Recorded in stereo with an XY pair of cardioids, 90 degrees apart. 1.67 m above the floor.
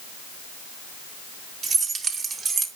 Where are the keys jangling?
70° right, 2.5 m; by 2.7 s 60° right, 1.9 m.